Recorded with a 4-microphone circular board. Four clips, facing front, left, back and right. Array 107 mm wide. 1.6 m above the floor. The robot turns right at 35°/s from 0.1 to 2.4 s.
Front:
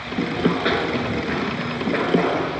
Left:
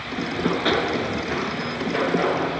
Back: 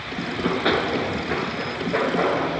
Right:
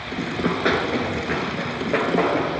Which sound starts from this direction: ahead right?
Running footsteps, at 0.3 s.